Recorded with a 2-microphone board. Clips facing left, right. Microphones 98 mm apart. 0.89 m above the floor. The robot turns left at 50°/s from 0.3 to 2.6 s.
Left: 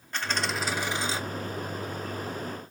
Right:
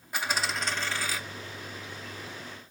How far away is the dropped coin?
About 0.5 m.